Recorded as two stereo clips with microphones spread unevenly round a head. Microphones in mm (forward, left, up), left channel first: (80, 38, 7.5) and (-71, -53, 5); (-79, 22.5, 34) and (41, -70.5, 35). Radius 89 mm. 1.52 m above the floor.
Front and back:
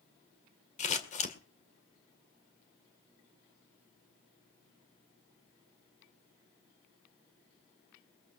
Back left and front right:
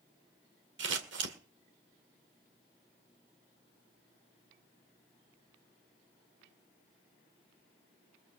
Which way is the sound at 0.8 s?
15° right.